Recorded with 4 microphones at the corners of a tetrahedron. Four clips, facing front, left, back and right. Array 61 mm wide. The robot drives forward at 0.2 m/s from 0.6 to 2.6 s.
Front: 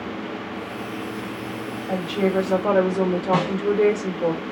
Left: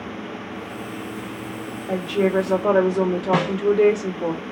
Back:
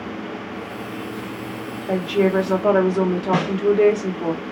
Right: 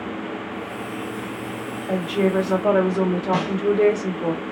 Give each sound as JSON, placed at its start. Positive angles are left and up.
{"t": 1.9, "sound": "a woman speaking", "azimuth_deg": 175, "distance_m": 1.2}
{"t": 3.3, "sound": "a snare drum", "azimuth_deg": 125, "distance_m": 0.7}